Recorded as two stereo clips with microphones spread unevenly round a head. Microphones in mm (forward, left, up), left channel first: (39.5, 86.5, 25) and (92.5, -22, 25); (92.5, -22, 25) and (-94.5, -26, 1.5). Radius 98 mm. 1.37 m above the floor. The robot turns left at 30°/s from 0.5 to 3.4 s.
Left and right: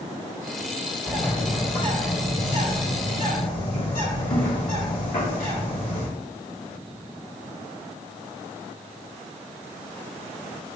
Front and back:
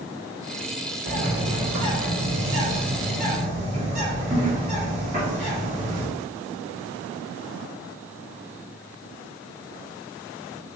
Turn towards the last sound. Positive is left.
turn(degrees=125)